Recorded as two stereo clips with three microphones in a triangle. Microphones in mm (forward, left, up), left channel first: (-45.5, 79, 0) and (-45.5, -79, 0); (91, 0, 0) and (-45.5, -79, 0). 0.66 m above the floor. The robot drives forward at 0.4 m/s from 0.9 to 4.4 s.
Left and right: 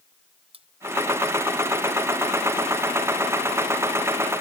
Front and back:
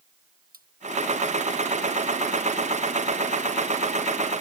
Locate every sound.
0.5 s cutlery clinking: 140° right